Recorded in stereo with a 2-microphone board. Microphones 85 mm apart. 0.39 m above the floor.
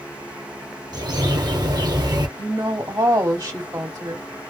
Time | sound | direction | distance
0.9 | a bird | 55° right (ahead or behind) | 0.8 m
2.4 | a woman speaking | 50° right (ahead or behind) | 2 m